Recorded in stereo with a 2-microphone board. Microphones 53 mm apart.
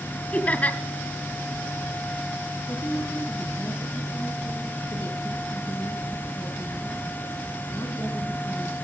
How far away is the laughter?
About 1.8 m.